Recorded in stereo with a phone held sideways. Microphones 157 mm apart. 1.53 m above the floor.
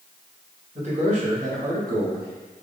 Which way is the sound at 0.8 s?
45° right (ahead or behind).